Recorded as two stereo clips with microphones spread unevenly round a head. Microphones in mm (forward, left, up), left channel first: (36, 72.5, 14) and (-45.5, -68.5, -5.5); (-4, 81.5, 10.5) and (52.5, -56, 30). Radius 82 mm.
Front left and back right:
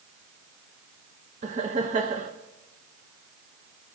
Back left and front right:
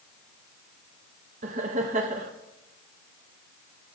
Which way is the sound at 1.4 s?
100° right.